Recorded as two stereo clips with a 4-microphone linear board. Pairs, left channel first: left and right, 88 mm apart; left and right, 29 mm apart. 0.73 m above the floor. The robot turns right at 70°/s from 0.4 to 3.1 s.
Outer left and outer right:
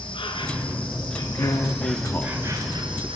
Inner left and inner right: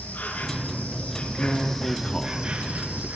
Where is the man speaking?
55° left (ahead or behind), 1.6 m; by 3.1 s 25° right (ahead or behind), 1.6 m.